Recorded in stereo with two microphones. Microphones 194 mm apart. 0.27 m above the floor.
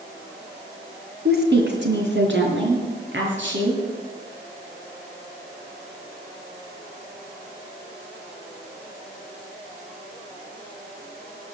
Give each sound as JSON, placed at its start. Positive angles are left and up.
{"t": 1.2, "sound": "a woman speaking", "side_deg": -55, "distance_m": 2.0}